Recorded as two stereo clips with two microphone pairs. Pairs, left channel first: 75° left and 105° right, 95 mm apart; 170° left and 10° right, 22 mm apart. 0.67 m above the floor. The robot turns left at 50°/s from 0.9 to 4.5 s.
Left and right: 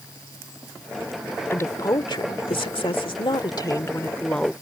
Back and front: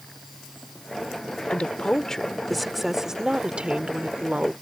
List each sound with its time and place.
1.5 s a woman speaking: 140° left; by 4.5 s 10° right